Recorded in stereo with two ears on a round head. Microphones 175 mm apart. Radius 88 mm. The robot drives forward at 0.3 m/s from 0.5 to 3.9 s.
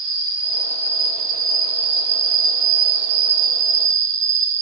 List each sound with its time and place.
0.0 s an insect: 30° right (ahead or behind), 0.9 m; by 4.6 s 65° right (ahead or behind), 0.5 m